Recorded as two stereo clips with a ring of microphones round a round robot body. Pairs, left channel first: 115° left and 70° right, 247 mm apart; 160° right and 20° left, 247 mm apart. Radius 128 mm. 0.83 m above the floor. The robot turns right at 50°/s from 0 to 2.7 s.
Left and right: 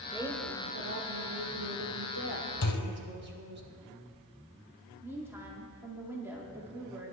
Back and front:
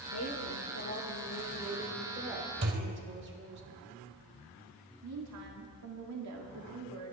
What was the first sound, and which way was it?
A woman speaking, 150° right.